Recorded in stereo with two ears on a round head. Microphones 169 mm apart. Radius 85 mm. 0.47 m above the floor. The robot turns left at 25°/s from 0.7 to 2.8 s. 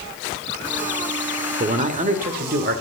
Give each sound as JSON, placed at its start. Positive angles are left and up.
{"t": 1.6, "sound": "a man speaking", "side_deg": -35, "distance_m": 1.9}